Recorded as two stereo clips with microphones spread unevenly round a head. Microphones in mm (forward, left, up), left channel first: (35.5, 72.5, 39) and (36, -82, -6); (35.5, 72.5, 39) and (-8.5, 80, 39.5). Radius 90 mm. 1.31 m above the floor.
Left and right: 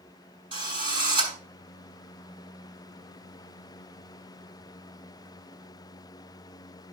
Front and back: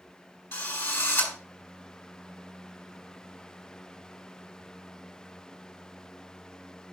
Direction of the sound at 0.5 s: 25° right.